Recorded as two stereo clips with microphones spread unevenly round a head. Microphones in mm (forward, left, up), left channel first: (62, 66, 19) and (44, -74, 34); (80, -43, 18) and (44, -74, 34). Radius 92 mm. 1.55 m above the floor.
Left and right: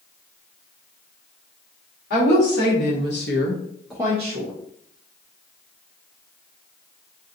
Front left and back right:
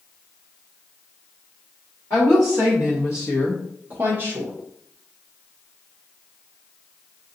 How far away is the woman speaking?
About 1.6 m.